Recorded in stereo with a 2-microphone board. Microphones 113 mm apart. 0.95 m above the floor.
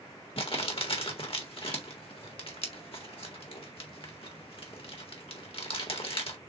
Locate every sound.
0.4 s crumpling: 55° left (ahead or behind), 1.4 m